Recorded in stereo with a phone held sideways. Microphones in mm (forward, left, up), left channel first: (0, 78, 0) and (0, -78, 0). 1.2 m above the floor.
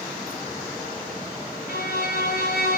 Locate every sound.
1.7 s a violin: 85° left, 1.9 m